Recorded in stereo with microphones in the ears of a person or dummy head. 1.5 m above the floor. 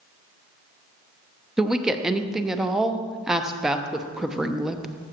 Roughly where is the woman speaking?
Centre.